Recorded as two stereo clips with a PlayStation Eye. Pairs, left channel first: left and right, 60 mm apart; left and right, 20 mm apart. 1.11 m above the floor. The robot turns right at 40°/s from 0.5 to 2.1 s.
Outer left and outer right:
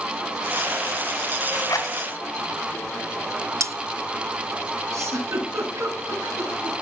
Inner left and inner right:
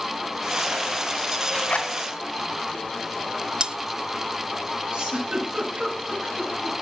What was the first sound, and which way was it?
A zipper, 70° left (ahead or behind).